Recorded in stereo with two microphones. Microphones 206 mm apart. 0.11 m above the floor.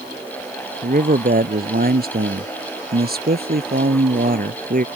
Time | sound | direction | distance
0.8 | a man speaking | 40° right (ahead or behind) | ?